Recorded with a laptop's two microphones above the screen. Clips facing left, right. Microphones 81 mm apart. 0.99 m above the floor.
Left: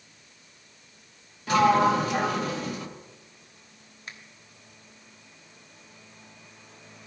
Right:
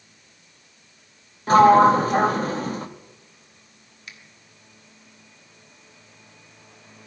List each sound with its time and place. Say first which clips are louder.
1.5 s a sliding door: right 7 dB; 35° right (ahead or behind), 0.7 m
4.1 s a finger snap: left 1 dB; 40° left (ahead or behind), 1.2 m